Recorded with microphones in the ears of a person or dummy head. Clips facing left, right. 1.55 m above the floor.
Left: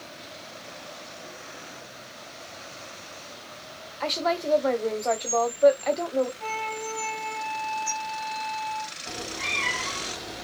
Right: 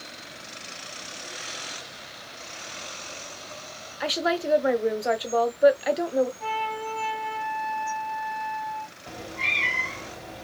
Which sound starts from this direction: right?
A cat meowing, at 9.1 s.